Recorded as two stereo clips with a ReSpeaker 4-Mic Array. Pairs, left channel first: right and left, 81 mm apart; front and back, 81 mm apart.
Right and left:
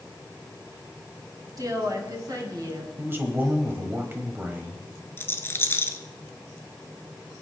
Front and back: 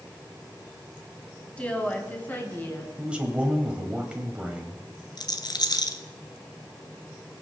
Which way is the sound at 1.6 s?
70° left.